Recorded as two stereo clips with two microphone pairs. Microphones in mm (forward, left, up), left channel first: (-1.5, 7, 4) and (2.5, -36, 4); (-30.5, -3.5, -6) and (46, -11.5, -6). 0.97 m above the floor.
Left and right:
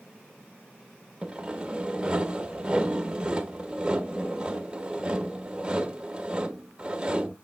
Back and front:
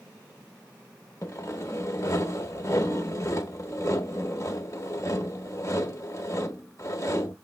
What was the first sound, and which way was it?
Sawing, 150° right.